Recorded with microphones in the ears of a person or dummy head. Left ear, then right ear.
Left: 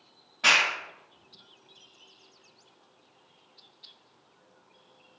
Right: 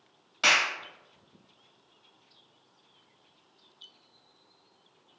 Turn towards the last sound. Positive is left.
turn(degrees=-55)  # may be behind; listen again after turning